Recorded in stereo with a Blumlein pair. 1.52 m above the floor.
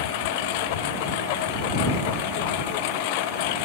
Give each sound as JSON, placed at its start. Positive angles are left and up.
{"t": 0.0, "sound": "a lawn mower", "azimuth_deg": 50}